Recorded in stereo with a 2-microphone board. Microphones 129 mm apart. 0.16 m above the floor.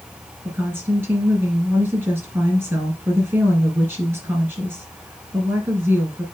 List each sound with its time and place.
0.5 s a woman speaking: 20° right (ahead or behind), 3.5 m